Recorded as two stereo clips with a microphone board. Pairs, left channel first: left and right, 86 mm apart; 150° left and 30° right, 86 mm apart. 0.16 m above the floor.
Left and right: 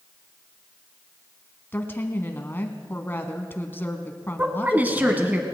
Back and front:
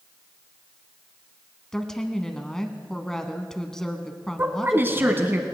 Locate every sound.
1.7 s a woman speaking: 75° left, 1.1 m
4.4 s a woman speaking: 50° right, 1.2 m